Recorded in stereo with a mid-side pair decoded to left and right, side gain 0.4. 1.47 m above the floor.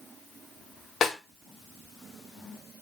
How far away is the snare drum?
About 0.9 m.